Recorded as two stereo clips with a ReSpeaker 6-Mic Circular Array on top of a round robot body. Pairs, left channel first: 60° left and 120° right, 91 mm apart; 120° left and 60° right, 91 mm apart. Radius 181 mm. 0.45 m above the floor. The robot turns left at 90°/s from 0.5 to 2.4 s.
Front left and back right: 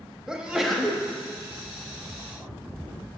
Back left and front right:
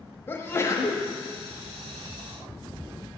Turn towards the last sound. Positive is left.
turn(degrees=-10)